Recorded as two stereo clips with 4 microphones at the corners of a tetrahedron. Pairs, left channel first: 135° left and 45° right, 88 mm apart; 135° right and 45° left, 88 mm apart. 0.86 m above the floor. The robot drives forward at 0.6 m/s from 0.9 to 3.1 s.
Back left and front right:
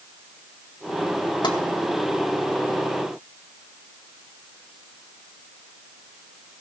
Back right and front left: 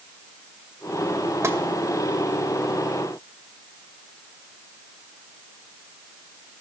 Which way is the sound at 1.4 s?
105° left.